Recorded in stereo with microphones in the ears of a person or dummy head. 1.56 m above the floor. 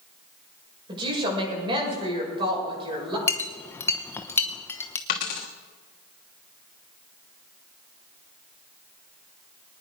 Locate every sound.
0.9 s a woman speaking: 25° right (ahead or behind), 7.5 m
3.3 s a clink: 10° left (ahead or behind), 0.9 m
5.1 s a dropped coin: 35° left (ahead or behind), 1.2 m